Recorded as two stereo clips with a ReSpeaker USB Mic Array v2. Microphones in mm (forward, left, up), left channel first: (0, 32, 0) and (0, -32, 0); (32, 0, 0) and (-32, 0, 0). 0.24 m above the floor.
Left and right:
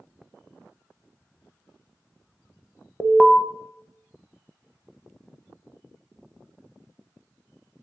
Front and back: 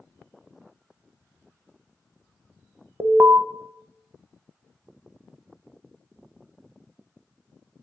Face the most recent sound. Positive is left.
turn(degrees=175)